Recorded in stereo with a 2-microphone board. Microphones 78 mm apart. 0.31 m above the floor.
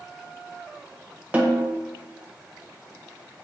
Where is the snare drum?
25° right (ahead or behind), 0.5 m.